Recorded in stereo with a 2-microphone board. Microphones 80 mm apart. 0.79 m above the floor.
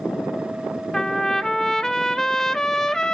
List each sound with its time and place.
0.9 s a trumpet: 5° left (ahead or behind), 0.5 m